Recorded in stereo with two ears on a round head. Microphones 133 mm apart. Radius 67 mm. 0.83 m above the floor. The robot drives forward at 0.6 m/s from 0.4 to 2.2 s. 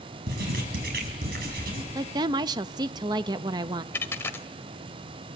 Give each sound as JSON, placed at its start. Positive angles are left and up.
{"t": 0.3, "sound": "writing", "side_deg": -85, "distance_m": 5.5}
{"t": 1.9, "sound": "a woman speaking", "side_deg": -25, "distance_m": 0.7}
{"t": 3.9, "sound": "a dropped coin", "side_deg": 15, "distance_m": 1.0}